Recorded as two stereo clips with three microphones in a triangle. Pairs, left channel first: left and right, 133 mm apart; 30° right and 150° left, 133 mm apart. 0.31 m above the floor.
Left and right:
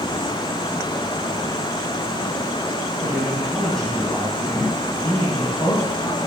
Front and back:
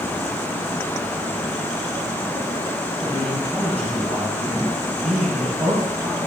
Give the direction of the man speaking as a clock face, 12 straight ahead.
6 o'clock.